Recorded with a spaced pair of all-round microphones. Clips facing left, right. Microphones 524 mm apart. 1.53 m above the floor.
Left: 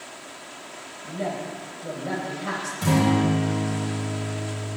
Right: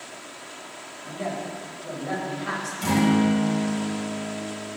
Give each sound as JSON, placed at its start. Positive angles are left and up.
{"t": 1.0, "sound": "a woman speaking", "side_deg": 65, "distance_m": 8.0}
{"t": 2.8, "sound": "a guitar", "side_deg": 70, "distance_m": 7.0}